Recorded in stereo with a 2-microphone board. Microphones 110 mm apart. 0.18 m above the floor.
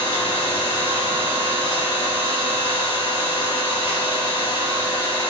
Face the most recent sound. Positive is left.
turn(degrees=60)  # may be behind; listen again after turning